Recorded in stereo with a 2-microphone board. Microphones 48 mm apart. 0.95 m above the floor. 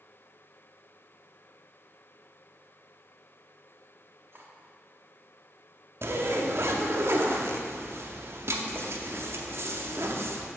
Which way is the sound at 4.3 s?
55° right (ahead or behind).